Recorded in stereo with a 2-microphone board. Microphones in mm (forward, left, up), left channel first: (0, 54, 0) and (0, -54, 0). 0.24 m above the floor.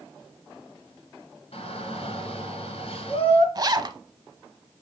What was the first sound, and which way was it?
A shout, 60° left (ahead or behind).